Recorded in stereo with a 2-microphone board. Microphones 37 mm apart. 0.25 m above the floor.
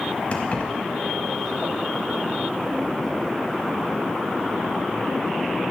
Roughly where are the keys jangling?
Left.